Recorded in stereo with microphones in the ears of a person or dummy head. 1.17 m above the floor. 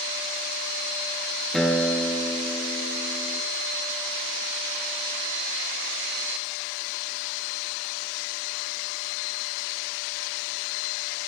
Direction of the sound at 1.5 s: Centre (ahead or behind).